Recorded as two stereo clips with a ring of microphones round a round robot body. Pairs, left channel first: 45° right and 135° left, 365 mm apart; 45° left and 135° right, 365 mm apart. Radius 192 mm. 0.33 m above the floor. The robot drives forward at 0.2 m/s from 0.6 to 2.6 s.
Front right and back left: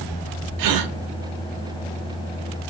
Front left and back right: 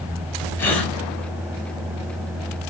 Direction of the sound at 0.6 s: 130° left.